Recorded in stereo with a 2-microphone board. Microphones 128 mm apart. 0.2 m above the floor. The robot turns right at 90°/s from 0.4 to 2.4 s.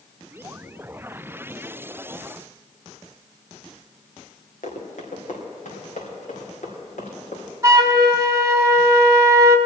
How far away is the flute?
About 0.8 m.